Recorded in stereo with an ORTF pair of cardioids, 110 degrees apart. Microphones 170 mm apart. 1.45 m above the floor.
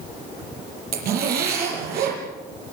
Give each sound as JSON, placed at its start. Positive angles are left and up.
{"t": 0.9, "sound": "a zipper", "azimuth_deg": -65, "distance_m": 7.0}